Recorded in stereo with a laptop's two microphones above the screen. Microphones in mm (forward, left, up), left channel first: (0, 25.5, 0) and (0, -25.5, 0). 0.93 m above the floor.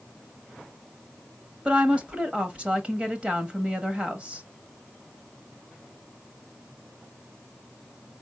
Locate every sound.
1.6 s a woman speaking: 25° right (ahead or behind), 1.0 m